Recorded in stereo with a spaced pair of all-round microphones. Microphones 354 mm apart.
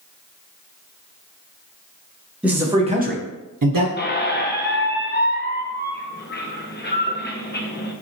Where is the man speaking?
5° right (ahead or behind), 1.0 m; by 3.9 s 70° right (ahead or behind), 0.6 m.